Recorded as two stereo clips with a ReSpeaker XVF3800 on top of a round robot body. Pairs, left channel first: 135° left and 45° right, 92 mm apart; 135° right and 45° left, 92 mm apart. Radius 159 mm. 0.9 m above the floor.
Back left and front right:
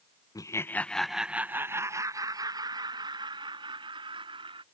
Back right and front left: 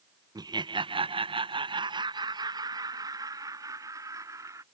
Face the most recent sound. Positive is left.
turn(degrees=-10)